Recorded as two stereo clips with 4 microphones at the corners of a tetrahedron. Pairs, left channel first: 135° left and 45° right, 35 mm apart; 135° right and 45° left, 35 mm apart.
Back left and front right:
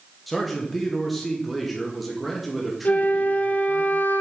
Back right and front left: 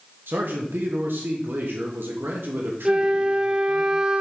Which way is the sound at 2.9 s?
105° left.